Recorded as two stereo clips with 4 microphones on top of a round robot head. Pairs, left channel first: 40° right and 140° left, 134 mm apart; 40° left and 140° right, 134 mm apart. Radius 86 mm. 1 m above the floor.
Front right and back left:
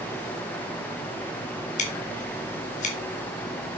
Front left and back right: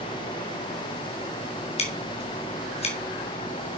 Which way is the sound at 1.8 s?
5° right.